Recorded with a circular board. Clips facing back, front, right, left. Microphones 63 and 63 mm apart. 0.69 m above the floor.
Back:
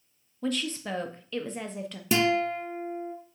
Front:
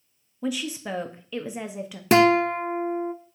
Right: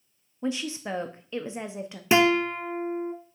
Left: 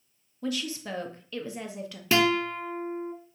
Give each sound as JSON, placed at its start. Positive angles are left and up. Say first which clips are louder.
{"t": 0.4, "sound": "a woman speaking", "louder": "front 1 dB, right 2 dB", "azimuth_deg": -70, "distance_m": 0.8}
{"t": 2.1, "sound": "a guitar", "louder": "front 7 dB, right 3 dB", "azimuth_deg": -25, "distance_m": 0.6}